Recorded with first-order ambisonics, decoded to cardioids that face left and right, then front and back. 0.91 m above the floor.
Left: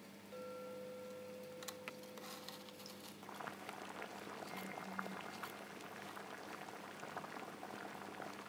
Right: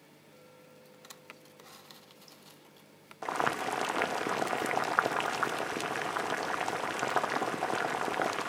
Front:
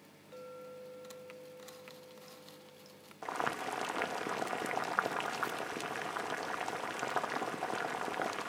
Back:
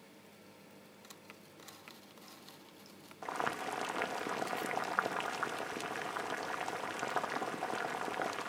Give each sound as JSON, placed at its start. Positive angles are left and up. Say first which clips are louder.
{"t": 0.3, "sound": "a clink", "louder": "left 9 dB, front 10 dB", "azimuth_deg": 30}
{"t": 3.2, "sound": "boiling", "louder": "right 19 dB, front 1 dB", "azimuth_deg": -85}